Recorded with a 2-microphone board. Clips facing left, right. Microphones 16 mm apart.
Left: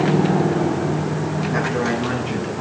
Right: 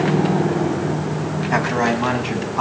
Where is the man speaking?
80° right, 7.5 m; by 2.6 s 75° right (ahead or behind), 8 m.